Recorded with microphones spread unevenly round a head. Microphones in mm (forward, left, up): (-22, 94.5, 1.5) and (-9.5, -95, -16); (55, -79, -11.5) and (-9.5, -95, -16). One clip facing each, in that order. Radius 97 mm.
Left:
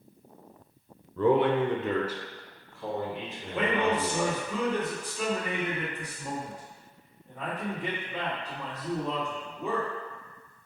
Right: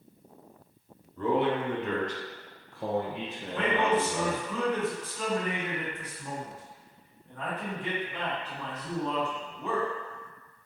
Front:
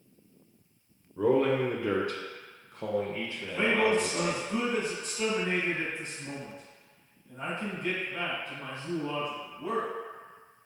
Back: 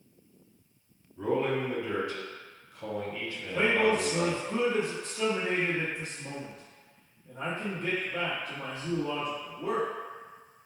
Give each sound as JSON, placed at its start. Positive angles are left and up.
{"t": 1.2, "sound": "a man speaking", "azimuth_deg": 65, "distance_m": 0.7}
{"t": 3.4, "sound": "a man speaking", "azimuth_deg": 170, "distance_m": 1.5}